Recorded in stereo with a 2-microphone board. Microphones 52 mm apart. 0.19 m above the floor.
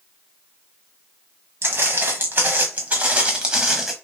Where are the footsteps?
50° right (ahead or behind), 1.6 m; by 3.9 s 5° right (ahead or behind), 0.9 m.